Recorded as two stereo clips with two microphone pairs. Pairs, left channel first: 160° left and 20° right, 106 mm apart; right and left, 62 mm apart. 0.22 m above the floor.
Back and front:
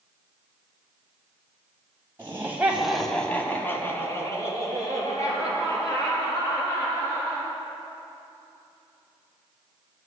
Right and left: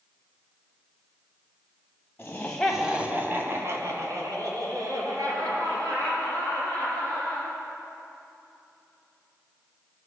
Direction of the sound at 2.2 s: 60° right.